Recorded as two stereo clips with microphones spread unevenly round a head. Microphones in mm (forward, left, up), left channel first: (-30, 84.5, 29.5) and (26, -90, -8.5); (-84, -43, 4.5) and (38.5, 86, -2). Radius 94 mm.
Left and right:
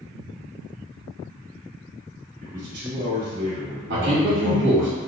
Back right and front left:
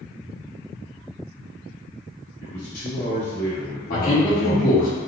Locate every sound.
2.4 s a man speaking: 100° right, 1.7 m
3.9 s a man speaking: 85° right, 1.8 m